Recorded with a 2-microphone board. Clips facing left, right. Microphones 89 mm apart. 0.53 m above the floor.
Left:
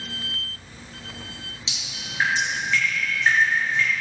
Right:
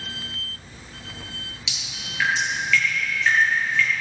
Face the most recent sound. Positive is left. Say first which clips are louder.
# even
turn(degrees=30)  # may be behind; listen again after turning